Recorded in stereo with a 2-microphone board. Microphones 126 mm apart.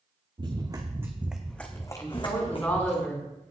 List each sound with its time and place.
0.4 s running footsteps: 40° right (ahead or behind), 2.5 m; by 3.0 s 55° left (ahead or behind), 2.5 m
2.0 s a woman speaking: 15° left (ahead or behind), 3.5 m